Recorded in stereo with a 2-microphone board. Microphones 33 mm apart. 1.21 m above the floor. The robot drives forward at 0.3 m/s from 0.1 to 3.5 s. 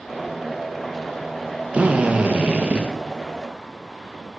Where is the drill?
40° right (ahead or behind), 1.4 m; by 2.9 s 30° right (ahead or behind), 1.6 m.